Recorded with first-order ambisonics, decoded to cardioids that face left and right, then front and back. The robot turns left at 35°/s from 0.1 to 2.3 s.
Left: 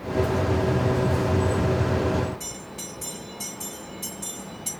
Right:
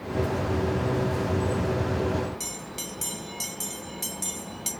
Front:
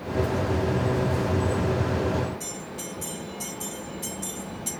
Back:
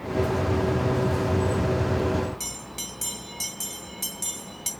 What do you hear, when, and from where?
2.4 s a bell: 135° right, 1.8 m